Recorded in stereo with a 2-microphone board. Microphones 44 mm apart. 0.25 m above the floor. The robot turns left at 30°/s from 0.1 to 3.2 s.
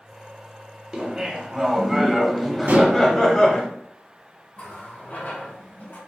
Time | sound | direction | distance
0.9 | laughter | 15° right (ahead or behind) | 1.0 m
2.7 | dishes clattering | 55° right (ahead or behind) | 1.3 m
4.5 | a running tap | 45° left (ahead or behind) | 1.8 m